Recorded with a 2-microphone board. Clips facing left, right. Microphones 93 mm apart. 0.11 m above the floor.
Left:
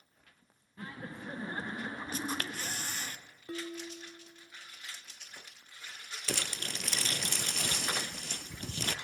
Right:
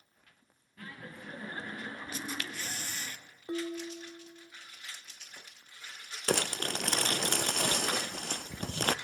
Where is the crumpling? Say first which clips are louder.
Right 8 dB; 55° right (ahead or behind), 0.7 m.